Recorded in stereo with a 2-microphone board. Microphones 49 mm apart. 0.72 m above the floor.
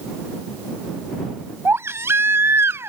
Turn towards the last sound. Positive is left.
turn(degrees=-75)  # may be behind; listen again after turning